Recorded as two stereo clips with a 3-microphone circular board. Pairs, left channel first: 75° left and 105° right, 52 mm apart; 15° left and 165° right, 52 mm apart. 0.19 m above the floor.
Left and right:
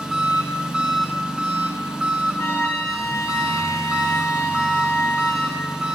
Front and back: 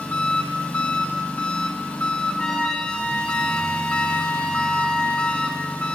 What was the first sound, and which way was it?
An engine running, 35° right.